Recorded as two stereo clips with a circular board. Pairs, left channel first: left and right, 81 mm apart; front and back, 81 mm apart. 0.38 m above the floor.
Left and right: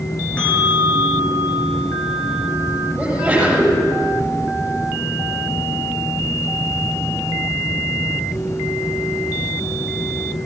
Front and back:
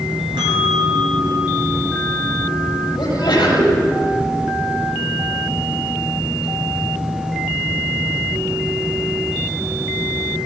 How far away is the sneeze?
About 10 m.